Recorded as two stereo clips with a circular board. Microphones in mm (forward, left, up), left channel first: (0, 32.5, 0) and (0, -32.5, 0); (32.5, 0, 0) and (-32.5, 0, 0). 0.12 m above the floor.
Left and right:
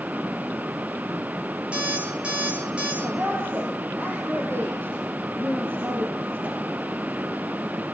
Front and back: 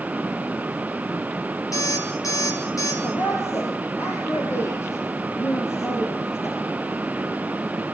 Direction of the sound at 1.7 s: 20° right.